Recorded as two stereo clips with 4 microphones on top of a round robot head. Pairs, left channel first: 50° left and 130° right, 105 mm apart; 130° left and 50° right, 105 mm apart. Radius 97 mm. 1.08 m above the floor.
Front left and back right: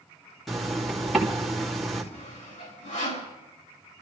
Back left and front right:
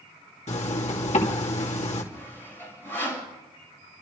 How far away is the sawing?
About 5.5 m.